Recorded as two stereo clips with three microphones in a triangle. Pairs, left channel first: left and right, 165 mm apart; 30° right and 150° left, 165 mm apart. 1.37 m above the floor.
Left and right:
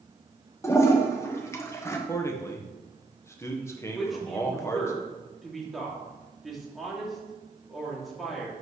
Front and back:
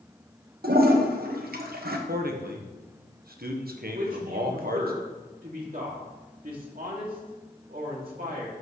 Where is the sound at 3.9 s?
Straight behind, 2.5 m.